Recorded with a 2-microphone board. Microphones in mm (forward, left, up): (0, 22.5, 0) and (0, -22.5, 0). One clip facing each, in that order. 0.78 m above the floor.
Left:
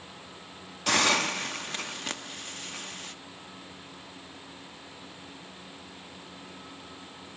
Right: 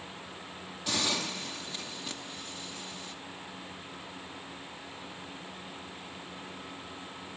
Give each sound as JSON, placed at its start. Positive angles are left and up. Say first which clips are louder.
{"t": 0.9, "sound": "a hiss", "louder": "left 8 dB", "side_deg": 60, "distance_m": 1.0}